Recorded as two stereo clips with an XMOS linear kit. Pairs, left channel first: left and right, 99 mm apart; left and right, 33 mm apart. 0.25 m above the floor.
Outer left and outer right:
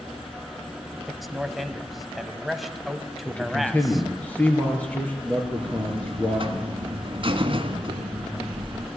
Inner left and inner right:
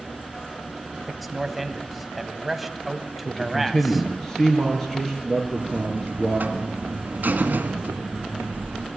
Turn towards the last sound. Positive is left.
turn(degrees=-65)  # may be behind; listen again after turning